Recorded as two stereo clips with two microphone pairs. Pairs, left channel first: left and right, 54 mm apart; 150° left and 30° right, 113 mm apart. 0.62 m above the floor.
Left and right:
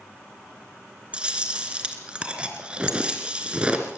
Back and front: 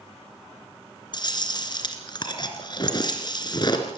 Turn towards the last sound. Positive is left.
turn(degrees=-160)